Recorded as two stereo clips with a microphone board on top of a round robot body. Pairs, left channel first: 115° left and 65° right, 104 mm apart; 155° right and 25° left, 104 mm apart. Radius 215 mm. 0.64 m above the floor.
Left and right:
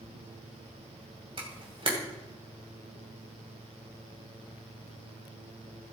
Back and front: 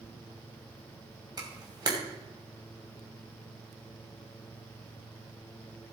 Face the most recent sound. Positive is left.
turn(degrees=-30)